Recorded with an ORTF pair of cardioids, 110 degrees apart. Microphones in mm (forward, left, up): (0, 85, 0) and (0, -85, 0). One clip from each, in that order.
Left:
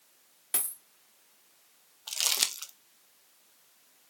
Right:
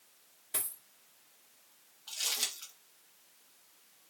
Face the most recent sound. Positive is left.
turn(degrees=50)